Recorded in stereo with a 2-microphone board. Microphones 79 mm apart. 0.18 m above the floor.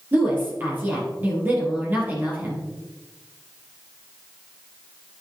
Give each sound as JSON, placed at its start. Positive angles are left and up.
{"t": 0.1, "sound": "a woman speaking", "side_deg": -25, "distance_m": 4.5}